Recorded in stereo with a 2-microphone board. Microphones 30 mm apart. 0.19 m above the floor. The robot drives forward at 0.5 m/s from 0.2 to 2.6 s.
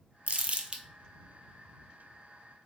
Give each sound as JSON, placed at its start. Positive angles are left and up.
{"t": 0.3, "sound": "crumpling", "side_deg": -50, "distance_m": 0.6}